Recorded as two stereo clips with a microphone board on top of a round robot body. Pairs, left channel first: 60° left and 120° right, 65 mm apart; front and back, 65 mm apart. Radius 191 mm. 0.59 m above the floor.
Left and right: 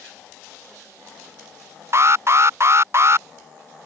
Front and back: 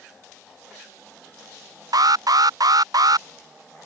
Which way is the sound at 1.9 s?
165° right.